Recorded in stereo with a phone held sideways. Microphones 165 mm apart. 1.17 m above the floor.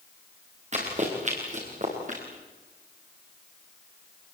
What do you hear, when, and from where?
0.7 s running footsteps: 45° right (ahead or behind), 6.5 m; by 2.2 s 50° right (ahead or behind), 7 m